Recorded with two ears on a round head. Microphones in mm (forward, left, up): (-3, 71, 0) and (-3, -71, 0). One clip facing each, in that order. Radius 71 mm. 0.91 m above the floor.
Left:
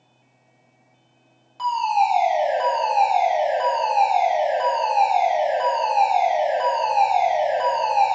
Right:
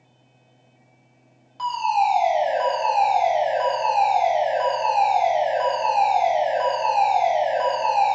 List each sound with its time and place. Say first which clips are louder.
1.6 s a fire alarm: left 1 dB; centre (ahead or behind), 3.5 m